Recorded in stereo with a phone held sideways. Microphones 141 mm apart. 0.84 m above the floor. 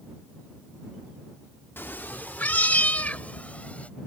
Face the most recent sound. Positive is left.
turn(degrees=10)  # may be behind; listen again after turning